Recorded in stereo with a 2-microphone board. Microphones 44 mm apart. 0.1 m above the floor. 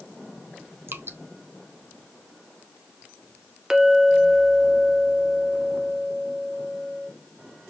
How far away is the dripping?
About 1.1 m.